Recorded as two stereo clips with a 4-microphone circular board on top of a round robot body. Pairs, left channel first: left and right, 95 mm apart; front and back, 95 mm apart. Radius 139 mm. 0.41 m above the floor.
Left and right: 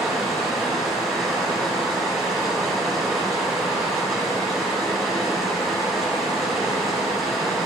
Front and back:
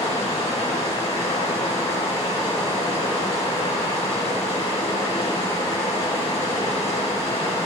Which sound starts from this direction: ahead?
Running water, at 0.0 s.